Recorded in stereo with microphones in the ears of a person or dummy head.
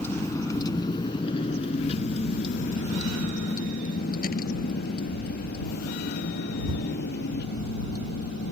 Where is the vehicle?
10° left (ahead or behind); by 8.5 s 65° left (ahead or behind).